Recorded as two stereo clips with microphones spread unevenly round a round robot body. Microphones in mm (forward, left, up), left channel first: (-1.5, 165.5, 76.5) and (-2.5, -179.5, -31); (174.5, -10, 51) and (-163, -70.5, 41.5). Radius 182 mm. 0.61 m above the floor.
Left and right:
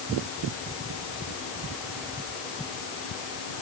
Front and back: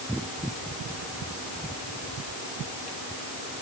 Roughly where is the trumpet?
I don't hear a trumpet.